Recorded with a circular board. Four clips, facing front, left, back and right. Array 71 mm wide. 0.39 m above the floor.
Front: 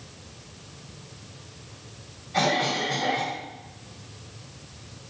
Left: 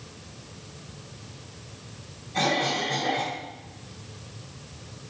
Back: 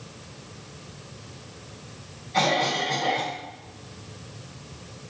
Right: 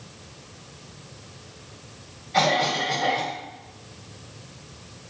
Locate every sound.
2.3 s a cough: 85° right, 2 m